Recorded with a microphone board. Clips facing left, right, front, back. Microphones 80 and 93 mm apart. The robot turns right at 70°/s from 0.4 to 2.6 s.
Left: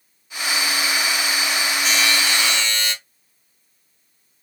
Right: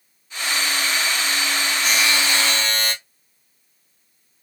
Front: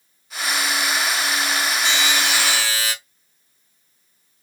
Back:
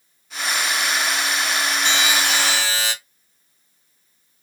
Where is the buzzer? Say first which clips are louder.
Right 1 dB, back 2 dB; 175° right, 2 m; by 2.9 s 125° right, 2 m.